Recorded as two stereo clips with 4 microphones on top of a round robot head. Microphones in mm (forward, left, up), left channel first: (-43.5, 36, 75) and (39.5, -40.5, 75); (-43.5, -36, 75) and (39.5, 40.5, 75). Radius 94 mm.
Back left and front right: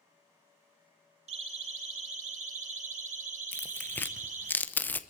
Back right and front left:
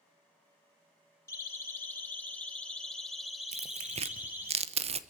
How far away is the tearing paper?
About 1.1 m.